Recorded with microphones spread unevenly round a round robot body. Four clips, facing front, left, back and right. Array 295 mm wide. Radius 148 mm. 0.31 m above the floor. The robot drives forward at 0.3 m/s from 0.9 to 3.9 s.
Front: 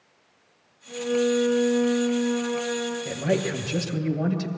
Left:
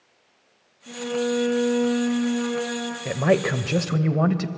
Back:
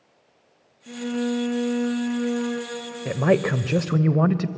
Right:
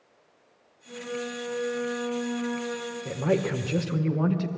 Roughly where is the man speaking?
Behind left.